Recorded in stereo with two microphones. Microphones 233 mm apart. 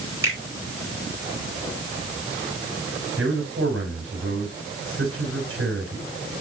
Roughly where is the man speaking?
Right.